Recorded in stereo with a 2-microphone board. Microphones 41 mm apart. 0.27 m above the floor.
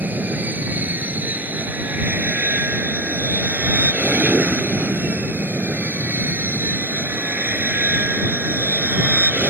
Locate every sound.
0.0 s an aircraft: 50° right (ahead or behind); by 9.5 s 45° right (ahead or behind)